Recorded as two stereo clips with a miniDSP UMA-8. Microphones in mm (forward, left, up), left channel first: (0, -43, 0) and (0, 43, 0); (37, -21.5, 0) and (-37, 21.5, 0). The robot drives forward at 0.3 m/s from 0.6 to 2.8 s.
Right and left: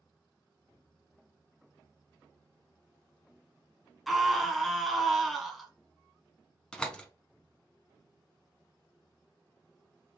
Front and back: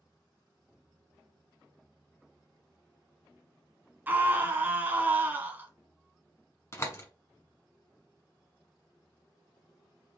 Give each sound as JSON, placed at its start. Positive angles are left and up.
{"t": 4.1, "sound": "a scream", "azimuth_deg": 180, "distance_m": 1.1}
{"t": 6.7, "sound": "a door slam", "azimuth_deg": -20, "distance_m": 1.1}